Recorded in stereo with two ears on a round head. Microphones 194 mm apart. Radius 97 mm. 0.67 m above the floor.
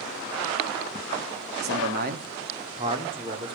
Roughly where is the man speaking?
Right.